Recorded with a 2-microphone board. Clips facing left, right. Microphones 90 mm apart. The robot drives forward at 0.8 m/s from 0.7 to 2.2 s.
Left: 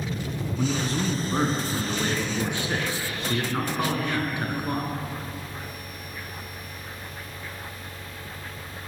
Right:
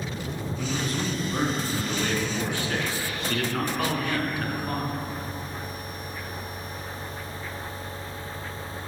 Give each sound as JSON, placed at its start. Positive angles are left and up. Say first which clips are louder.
{"t": 0.6, "sound": "a man speaking", "louder": "left 3 dB", "side_deg": 30, "distance_m": 1.3}